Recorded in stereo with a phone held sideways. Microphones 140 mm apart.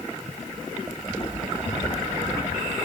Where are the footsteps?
55° left (ahead or behind), 8 m; by 2.6 s 60° left (ahead or behind), 7.5 m.